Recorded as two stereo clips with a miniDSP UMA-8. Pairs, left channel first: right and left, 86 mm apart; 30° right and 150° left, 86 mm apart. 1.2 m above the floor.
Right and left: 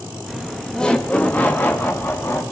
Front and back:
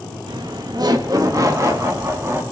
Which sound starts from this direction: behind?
Laughter, at 0.3 s.